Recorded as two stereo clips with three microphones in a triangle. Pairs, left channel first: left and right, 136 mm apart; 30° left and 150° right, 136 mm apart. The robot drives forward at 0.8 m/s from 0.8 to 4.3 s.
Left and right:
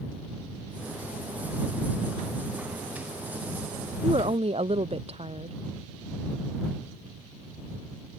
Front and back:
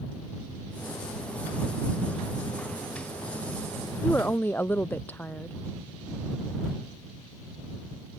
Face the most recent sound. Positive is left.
turn(degrees=-45)